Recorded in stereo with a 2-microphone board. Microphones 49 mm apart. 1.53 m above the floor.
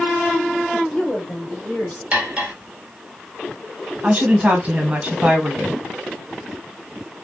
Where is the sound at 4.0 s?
30° right (ahead or behind), 1.6 m.